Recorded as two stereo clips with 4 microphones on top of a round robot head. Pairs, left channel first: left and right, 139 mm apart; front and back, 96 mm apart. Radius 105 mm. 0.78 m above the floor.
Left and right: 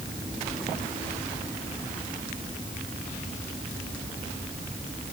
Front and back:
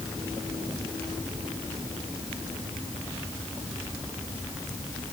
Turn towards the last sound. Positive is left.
No sound to turn to.